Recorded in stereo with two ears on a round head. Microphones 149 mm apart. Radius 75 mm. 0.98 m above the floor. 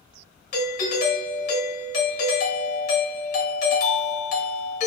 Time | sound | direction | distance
0.5 | a doorbell | 50° left (ahead or behind) | 0.9 m